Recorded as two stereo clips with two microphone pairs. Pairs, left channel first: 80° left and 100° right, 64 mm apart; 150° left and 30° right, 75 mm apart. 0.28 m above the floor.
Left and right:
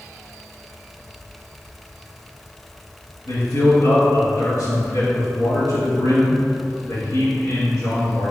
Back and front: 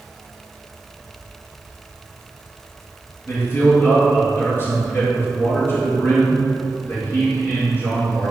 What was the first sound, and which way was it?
A man speaking, 100° left.